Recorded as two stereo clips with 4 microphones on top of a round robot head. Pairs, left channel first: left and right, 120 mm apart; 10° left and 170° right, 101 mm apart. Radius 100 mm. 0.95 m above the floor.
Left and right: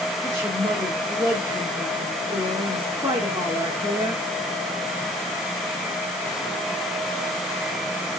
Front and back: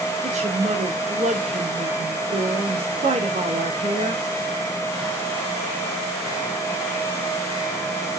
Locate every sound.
0.2 s a woman speaking: 165° right, 2.5 m